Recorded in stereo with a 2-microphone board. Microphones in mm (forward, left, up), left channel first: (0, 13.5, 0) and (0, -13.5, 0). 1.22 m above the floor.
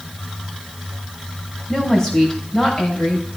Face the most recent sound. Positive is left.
turn(degrees=30)  # may be behind; listen again after turning